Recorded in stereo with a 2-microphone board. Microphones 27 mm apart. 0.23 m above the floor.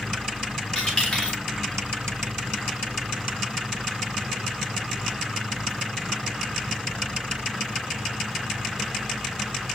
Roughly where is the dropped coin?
Left.